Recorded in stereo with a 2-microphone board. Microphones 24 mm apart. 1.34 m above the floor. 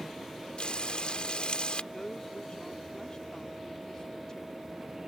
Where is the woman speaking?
30° left (ahead or behind).